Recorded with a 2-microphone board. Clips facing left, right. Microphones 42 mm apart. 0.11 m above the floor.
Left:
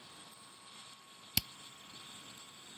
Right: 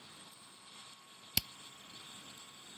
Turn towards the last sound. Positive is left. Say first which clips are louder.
# even
turn(degrees=0)  # may be behind; listen again after turning